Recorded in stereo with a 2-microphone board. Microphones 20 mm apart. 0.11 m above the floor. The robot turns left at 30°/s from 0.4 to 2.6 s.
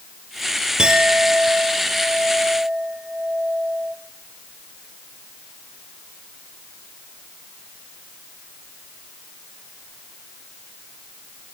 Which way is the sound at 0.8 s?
45° right.